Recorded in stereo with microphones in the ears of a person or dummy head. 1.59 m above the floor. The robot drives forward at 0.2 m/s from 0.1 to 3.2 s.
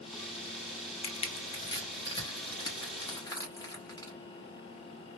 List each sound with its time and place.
1.0 s crushing: 35° left (ahead or behind), 0.8 m; by 4.1 s 25° left (ahead or behind), 1.1 m